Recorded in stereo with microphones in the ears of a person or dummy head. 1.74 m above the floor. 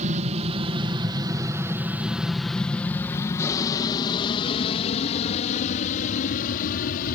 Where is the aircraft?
35° right (ahead or behind); by 7.2 s 50° left (ahead or behind).